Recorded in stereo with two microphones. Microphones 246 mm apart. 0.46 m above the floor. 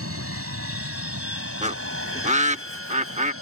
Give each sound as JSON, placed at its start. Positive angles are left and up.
{"t": 0.0, "sound": "an aircraft", "side_deg": -65}
{"t": 1.6, "sound": "a bird", "side_deg": -30}